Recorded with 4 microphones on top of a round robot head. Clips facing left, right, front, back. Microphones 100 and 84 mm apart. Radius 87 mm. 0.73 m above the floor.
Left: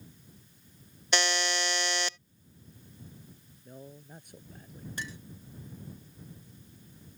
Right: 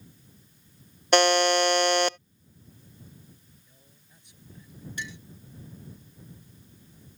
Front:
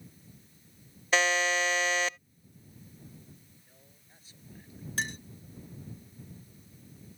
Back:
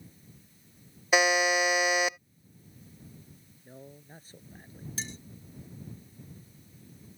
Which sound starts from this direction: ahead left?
A clink, at 5.0 s.